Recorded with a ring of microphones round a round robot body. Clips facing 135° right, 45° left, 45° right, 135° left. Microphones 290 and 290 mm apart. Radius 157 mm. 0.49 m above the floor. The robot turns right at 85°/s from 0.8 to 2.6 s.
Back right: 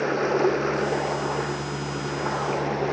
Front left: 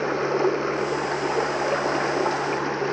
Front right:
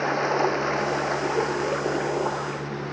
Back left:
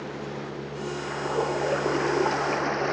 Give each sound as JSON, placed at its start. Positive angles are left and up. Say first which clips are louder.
{"t": 0.0, "sound": "running water", "louder": "even, front right 9 dB", "azimuth_deg": -40}